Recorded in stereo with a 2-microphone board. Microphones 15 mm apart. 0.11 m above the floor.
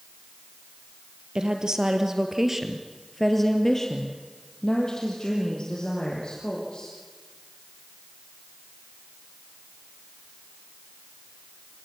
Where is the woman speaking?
50° right (ahead or behind), 2.5 m; by 6.9 s 60° left (ahead or behind), 5 m.